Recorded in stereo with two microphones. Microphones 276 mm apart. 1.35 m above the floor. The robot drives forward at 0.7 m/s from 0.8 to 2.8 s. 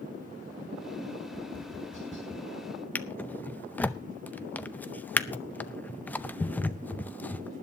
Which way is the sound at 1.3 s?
50° right (ahead or behind).